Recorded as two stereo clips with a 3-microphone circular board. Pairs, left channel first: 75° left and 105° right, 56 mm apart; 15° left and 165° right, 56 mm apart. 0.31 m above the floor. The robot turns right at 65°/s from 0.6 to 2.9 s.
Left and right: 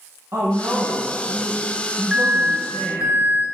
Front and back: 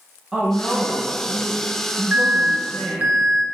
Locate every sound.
0.3 s a woman speaking: 80° right, 1.6 m; by 3.1 s 65° left, 1.6 m
2.1 s an alarm: 170° right, 1.6 m; by 3.5 s 120° right, 1.6 m